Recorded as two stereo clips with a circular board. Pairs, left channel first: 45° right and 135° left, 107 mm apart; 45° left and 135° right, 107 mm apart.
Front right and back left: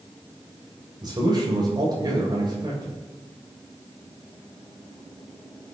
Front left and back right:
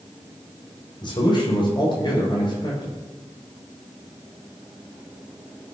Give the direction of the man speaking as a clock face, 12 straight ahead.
9 o'clock.